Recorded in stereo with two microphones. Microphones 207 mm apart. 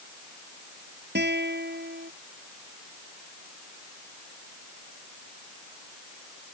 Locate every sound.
1.1 s a guitar: 55° right (ahead or behind)